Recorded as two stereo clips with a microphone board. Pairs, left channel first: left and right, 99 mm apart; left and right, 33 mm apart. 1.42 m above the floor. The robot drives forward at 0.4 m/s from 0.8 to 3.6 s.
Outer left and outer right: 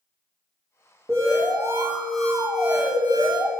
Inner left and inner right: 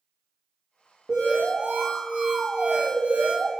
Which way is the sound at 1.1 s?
30° right (ahead or behind).